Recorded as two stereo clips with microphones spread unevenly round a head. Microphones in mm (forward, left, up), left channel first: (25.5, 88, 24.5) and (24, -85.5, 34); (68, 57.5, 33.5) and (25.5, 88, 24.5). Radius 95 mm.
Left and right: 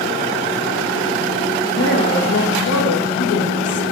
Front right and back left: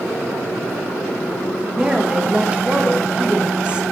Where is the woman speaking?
75° left, 1.6 m.